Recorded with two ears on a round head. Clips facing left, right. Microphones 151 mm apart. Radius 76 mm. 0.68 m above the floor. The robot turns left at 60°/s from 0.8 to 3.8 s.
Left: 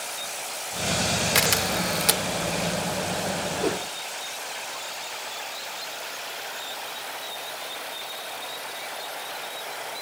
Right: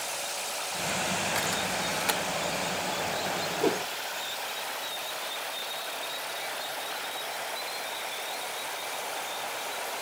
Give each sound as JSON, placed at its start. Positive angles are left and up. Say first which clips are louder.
{"t": 1.4, "sound": "a camera shutter", "louder": "left 5 dB", "side_deg": 90}
{"t": 3.6, "sound": "a whoosh", "louder": "right 1 dB", "side_deg": -5}